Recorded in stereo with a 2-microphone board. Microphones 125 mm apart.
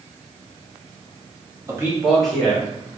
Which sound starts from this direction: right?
A man speaking, at 1.7 s.